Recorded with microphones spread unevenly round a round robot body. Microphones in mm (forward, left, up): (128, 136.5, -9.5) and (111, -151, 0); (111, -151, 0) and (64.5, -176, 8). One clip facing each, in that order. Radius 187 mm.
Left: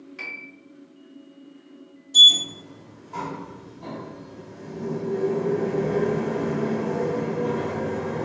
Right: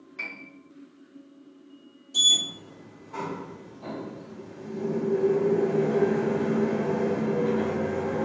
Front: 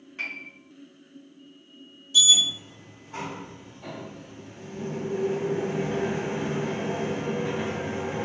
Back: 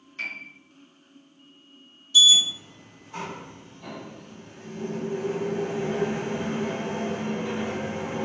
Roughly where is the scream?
No scream in this recording.